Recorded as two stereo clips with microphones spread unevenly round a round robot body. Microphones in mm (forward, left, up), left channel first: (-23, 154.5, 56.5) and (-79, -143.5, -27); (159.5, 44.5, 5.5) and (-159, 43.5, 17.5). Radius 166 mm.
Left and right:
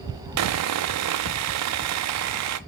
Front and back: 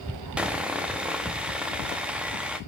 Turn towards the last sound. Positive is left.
turn(degrees=-90)